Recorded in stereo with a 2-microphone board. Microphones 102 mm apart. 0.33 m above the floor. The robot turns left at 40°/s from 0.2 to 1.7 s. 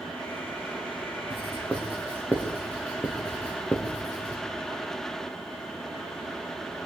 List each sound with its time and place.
1.3 s writing: 5° right (ahead or behind), 5.5 m; by 4.4 s 10° left (ahead or behind), 5.5 m